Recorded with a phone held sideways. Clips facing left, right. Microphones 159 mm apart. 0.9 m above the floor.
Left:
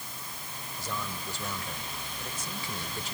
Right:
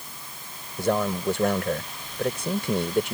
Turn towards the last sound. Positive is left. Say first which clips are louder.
# right 15 dB
turn(degrees=-80)